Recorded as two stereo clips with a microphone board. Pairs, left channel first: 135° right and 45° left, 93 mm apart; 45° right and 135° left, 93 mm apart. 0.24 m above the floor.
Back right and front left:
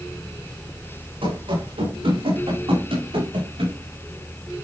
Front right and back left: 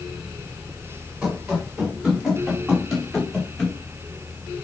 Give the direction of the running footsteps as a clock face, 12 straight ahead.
10 o'clock.